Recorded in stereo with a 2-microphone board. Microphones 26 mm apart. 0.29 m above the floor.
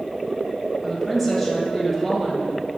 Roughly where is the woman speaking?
Centre.